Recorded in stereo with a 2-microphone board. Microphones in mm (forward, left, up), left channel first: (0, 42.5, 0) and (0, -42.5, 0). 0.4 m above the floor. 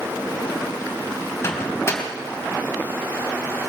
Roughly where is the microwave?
Left.